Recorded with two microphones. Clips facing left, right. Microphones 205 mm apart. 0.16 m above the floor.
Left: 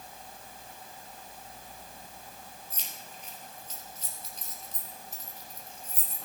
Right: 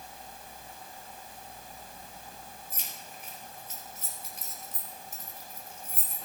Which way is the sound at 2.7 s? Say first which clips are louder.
Right 1 dB; 10° right (ahead or behind).